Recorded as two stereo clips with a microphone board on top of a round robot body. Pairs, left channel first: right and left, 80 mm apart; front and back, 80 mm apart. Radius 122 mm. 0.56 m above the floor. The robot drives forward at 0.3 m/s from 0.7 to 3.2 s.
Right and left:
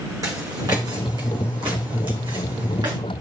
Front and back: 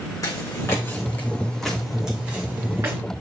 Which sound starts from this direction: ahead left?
Footsteps, at 0.2 s.